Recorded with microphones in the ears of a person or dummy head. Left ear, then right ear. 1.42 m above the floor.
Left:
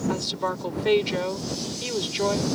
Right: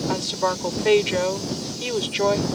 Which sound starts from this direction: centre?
A woman speaking, at 0.1 s.